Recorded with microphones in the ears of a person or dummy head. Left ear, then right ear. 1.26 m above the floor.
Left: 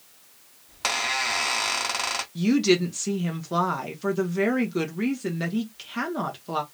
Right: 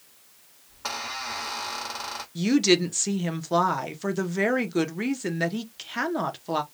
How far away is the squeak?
About 0.7 m.